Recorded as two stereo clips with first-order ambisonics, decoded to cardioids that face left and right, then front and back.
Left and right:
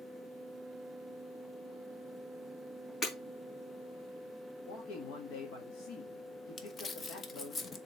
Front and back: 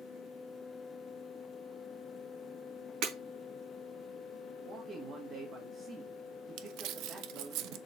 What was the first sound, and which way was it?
Breaking glass, 160° left.